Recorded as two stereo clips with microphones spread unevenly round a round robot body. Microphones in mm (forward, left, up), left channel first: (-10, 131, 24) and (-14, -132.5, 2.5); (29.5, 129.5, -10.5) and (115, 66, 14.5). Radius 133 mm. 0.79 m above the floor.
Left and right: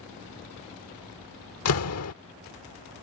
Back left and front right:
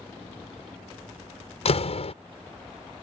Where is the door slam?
125° left.